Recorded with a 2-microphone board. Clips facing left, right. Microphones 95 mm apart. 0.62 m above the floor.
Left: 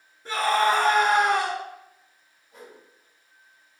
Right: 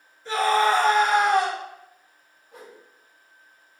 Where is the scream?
45° left (ahead or behind), 1.7 m.